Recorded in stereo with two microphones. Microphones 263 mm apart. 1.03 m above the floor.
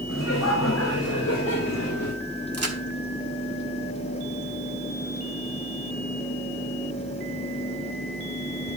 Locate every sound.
0.1 s laughter: 85° left, 4.5 m
2.5 s a crack: 70° right (ahead or behind), 1.7 m